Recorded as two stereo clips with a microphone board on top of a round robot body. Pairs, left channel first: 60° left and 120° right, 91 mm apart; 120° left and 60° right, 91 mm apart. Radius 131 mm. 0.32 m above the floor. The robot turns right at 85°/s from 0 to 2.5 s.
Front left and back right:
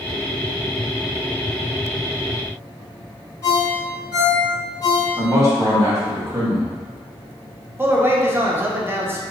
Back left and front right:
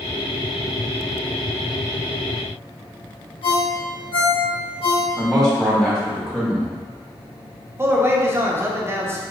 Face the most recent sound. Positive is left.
turn(degrees=-85)